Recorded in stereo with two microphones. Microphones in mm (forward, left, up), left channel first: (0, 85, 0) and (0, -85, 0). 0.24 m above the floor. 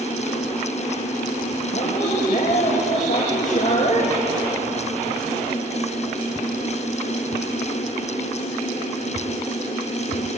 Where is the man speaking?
45° left (ahead or behind), 6.5 m.